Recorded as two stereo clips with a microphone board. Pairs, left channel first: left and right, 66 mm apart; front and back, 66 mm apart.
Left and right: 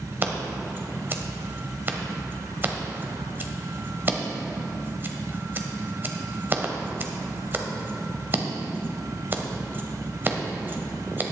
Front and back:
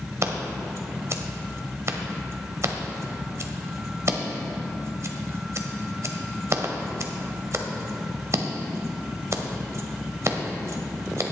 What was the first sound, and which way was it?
Scissors, 145° right.